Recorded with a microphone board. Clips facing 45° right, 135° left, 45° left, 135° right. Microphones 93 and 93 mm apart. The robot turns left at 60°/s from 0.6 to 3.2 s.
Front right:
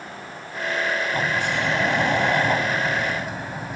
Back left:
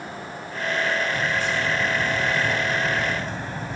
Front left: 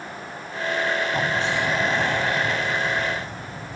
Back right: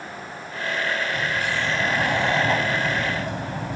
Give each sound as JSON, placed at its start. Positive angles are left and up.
{"t": 1.1, "sound": "a sliding door", "azimuth_deg": 0}